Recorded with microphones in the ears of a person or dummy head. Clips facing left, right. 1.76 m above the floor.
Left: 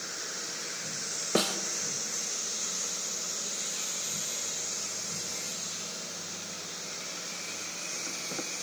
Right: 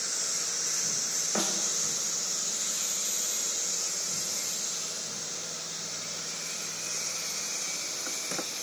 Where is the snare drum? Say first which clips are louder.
Left 5 dB; 50° left (ahead or behind), 2.5 m.